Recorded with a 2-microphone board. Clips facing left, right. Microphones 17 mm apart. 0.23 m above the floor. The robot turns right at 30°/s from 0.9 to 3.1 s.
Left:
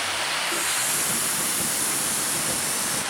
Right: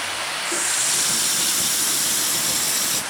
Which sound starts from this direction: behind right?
A running tap, at 0.5 s.